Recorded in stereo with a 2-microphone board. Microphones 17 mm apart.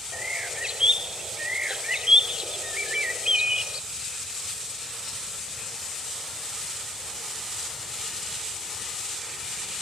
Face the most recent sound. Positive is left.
turn(degrees=-75)  # may be behind; listen again after turning